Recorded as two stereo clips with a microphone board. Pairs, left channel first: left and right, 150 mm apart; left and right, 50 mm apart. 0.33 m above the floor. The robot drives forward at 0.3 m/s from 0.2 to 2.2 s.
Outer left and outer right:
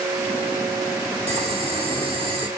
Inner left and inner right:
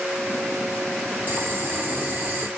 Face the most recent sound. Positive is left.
turn(degrees=-35)  # may be behind; listen again after turning